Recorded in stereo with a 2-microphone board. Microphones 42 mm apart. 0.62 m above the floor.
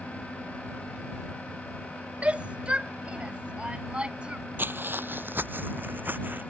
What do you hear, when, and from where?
2.2 s a shout: 30° right (ahead or behind); by 4.4 s 25° right (ahead or behind)
4.6 s footsteps: 50° right (ahead or behind); by 6.5 s 45° right (ahead or behind)